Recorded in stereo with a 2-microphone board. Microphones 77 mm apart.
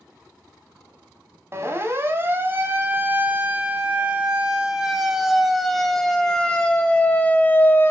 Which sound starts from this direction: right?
A siren, at 1.5 s.